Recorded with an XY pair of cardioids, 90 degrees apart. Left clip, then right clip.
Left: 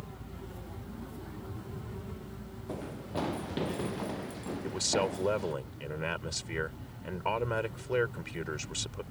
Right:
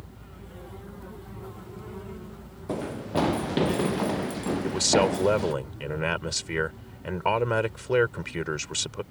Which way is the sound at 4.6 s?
55° right.